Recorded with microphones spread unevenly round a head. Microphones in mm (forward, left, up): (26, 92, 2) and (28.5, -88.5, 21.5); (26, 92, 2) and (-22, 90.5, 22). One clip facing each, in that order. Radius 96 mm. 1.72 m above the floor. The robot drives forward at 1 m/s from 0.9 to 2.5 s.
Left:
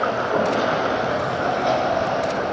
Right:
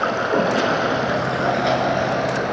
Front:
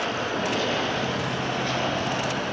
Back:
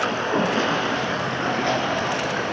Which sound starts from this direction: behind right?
Running water, at 0.0 s.